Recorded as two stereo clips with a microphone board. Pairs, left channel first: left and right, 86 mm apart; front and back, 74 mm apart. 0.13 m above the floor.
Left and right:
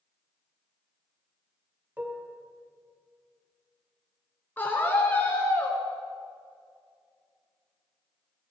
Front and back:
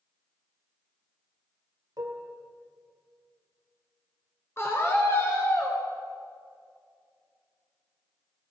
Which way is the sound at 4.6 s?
30° left.